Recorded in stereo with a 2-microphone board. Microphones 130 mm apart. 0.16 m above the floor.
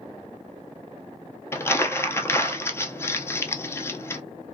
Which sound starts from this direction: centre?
Crumpling, at 1.5 s.